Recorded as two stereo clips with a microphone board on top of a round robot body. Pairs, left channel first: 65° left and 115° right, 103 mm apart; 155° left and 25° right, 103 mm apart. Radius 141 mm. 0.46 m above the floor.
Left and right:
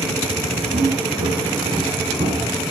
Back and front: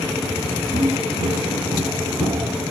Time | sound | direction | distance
0.7 | footsteps | 65° right | 1.5 m